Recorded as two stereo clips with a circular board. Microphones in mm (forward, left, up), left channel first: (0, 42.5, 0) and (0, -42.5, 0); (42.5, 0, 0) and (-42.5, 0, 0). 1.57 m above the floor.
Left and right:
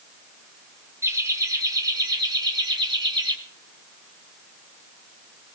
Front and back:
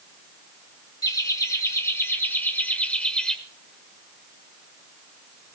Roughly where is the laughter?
Ahead right.